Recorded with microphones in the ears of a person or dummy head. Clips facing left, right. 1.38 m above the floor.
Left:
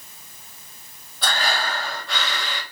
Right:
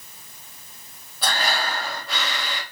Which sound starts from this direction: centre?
Breathing, at 1.2 s.